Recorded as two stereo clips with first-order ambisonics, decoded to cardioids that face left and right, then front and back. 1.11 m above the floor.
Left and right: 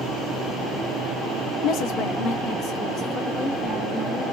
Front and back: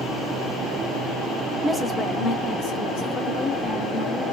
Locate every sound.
1.6 s a woman speaking: 95° left, 0.5 m; by 4.2 s 25° left, 2 m